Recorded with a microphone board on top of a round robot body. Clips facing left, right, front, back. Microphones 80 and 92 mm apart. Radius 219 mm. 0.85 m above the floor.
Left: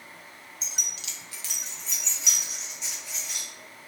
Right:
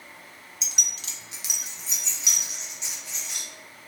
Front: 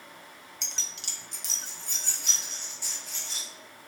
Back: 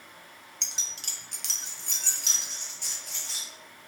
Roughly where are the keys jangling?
Right.